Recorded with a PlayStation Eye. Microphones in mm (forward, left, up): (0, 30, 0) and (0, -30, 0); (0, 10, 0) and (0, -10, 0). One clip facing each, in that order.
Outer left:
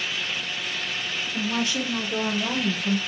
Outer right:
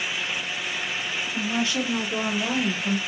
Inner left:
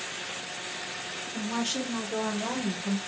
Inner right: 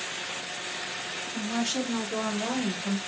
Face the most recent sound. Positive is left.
turn(degrees=-35)  # may be behind; listen again after turning